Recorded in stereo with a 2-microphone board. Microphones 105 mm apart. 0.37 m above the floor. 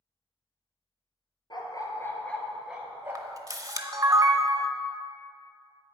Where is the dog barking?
50° left (ahead or behind), 1.5 m; by 3.4 s 25° right (ahead or behind), 2 m.